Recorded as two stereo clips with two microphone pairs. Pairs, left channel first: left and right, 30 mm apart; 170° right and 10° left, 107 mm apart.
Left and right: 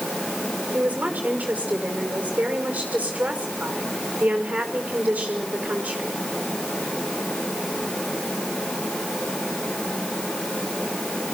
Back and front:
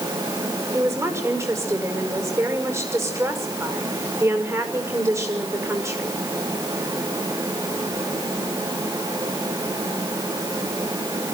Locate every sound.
0.7 s a woman speaking: 55° right, 5.5 m